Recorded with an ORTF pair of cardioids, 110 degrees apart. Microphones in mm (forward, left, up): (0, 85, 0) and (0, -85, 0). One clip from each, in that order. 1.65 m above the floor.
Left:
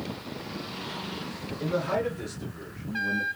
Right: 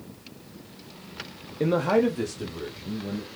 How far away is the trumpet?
I don't hear a trumpet.